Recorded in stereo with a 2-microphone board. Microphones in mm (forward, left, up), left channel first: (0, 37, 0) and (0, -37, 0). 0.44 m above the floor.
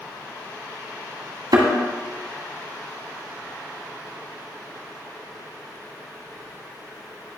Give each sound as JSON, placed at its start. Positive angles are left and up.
{"t": 1.5, "sound": "a thud", "side_deg": -70, "distance_m": 1.7}